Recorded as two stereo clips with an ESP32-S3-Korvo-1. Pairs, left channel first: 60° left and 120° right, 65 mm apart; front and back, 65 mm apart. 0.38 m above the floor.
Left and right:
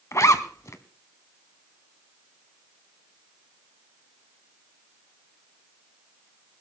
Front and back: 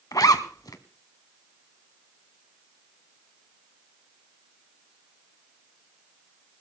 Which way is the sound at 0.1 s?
20° left.